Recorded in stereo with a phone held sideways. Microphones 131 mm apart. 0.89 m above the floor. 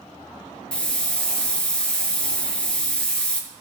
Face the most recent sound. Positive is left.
turn(degrees=10)  # may be behind; listen again after turning